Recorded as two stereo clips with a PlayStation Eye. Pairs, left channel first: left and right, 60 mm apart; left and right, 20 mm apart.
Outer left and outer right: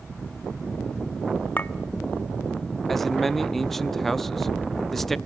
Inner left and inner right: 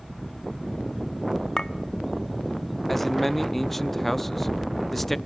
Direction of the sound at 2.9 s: 5° left (ahead or behind).